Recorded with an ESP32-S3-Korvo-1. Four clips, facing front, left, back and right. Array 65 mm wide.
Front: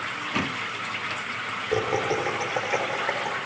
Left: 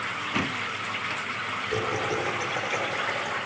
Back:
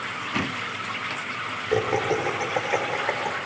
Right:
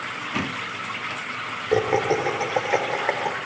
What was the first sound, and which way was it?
Laughter, 100° right.